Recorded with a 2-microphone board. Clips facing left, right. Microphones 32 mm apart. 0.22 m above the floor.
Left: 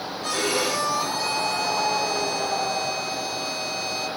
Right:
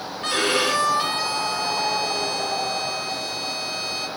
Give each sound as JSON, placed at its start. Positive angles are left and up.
{"t": 0.2, "sound": "a violin", "side_deg": -50, "distance_m": 1.8}